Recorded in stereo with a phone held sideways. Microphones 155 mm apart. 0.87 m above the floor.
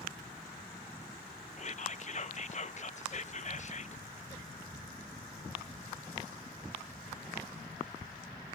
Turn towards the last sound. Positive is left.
turn(degrees=50)  # may be behind; listen again after turning